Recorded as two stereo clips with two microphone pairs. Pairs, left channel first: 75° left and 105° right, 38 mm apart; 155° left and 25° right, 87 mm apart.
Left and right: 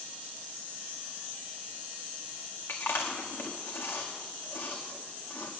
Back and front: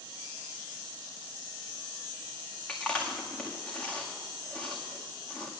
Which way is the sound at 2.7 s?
80° left.